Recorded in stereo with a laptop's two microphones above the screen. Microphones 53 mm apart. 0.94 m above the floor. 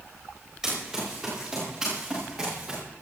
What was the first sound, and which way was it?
Running footsteps, 10° right (ahead or behind).